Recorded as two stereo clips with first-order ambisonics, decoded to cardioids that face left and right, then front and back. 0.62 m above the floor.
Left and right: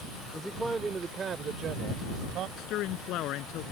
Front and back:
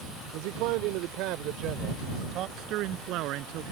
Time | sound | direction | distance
0.3 | a man speaking | straight behind | ?
2.6 | a man speaking | 135° left | ?